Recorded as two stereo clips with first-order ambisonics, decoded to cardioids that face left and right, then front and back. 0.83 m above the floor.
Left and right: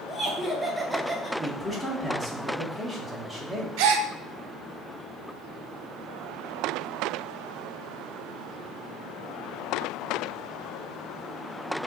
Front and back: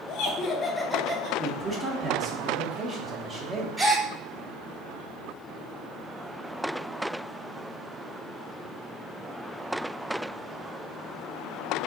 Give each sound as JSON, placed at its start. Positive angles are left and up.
{"t": 0.1, "sound": "laughter", "azimuth_deg": 5, "distance_m": 1.0}
{"t": 1.4, "sound": "a man speaking", "azimuth_deg": 170, "distance_m": 0.9}
{"t": 3.8, "sound": "a gasp", "azimuth_deg": -100, "distance_m": 0.7}